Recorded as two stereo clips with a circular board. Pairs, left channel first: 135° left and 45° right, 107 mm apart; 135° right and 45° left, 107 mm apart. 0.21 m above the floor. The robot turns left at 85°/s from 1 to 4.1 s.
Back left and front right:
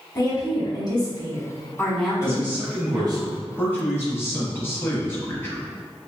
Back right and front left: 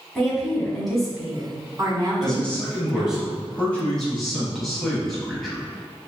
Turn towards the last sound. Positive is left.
turn(degrees=140)